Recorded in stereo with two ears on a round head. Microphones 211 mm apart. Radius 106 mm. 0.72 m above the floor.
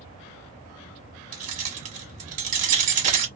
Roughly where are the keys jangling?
Right.